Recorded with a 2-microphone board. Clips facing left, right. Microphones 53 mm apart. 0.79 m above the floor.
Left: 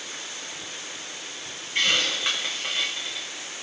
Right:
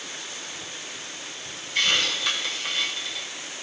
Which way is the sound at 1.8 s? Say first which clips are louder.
Even; 30° left (ahead or behind).